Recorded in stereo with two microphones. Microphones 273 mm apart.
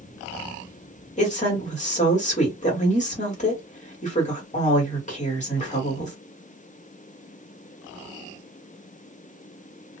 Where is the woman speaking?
25° left (ahead or behind), 1.5 m.